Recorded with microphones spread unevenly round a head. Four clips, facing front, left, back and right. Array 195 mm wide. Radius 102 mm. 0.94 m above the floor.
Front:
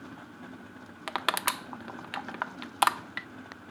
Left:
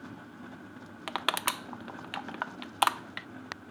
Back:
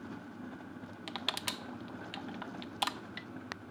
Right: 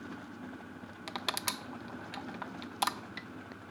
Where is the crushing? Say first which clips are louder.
Left 6 dB, front 11 dB; 20° left.